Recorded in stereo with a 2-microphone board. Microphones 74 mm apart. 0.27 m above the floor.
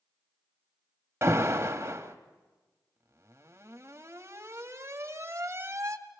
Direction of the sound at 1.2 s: 35° right (ahead or behind).